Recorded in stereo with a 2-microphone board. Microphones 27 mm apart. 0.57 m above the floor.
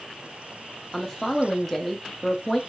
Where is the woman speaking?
10° left (ahead or behind), 0.7 m.